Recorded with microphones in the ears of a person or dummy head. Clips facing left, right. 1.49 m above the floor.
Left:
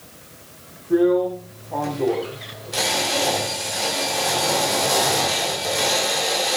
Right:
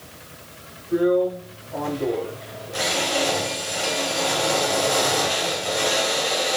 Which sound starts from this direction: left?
A drill, at 0.9 s.